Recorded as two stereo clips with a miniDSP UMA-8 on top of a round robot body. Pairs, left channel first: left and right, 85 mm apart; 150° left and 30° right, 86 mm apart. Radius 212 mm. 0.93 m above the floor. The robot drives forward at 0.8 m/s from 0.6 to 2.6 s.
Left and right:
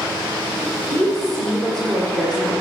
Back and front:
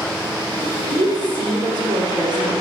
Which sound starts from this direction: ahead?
A woman speaking, at 0.9 s.